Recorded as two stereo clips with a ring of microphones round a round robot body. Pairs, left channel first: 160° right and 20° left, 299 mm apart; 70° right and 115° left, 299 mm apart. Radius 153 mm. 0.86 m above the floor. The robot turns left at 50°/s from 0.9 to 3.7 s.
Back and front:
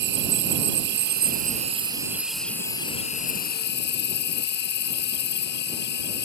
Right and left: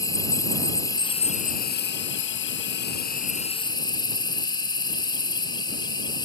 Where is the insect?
5° left; by 6.3 s 135° right.